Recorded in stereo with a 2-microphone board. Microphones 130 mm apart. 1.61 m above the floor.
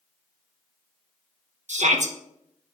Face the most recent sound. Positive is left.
turn(degrees=-65)  # may be behind; listen again after turning